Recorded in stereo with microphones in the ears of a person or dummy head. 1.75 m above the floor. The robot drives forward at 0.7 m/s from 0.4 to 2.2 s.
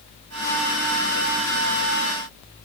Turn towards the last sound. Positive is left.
No sound to turn to.